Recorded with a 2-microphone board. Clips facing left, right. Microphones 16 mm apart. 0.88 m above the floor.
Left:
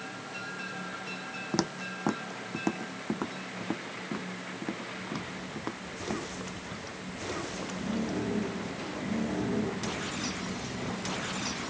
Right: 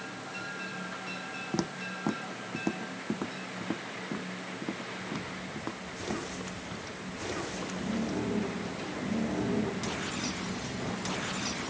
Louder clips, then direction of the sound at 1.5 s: Left 3 dB; 25° left (ahead or behind).